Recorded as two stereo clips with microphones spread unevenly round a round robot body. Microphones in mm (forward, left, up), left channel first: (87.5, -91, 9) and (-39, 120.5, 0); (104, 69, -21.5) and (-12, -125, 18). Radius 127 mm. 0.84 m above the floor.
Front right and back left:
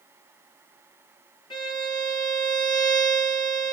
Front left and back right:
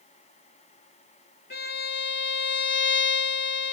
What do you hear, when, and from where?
1.5 s a violin: 15° left, 2.5 m